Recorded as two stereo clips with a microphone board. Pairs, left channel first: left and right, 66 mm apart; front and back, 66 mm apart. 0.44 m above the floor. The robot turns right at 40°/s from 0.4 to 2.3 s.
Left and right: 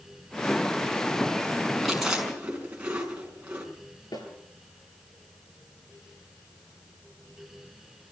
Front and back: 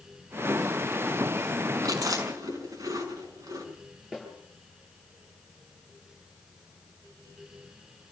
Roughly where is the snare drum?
Left.